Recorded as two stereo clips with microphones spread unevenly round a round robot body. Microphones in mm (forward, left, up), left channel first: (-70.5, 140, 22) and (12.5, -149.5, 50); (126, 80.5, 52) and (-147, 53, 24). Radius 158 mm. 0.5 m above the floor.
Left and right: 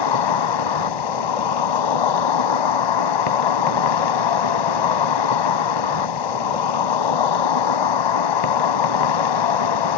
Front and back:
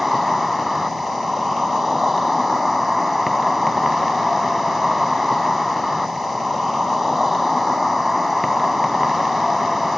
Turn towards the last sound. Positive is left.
turn(degrees=95)